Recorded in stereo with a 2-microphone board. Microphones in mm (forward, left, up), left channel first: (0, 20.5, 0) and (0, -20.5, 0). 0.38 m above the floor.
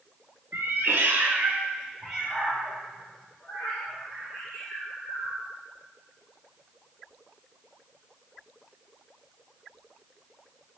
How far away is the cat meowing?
About 0.6 m.